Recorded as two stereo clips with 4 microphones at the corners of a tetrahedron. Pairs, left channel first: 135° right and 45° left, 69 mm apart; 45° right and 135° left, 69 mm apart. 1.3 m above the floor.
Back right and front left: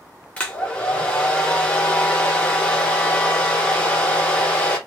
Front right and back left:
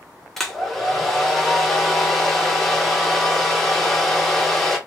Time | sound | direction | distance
0.4 | a hair dryer | 125° right | 1.0 m